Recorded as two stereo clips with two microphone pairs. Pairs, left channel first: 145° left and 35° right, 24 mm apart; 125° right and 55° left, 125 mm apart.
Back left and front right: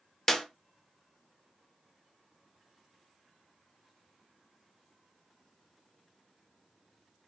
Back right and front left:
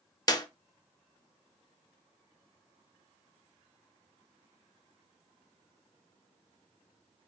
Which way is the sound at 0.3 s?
160° right.